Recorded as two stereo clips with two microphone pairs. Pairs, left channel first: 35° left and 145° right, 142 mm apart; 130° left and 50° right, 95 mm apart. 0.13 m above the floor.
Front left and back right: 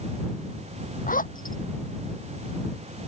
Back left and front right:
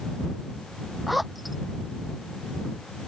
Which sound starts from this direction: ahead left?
A zipper, at 1.1 s.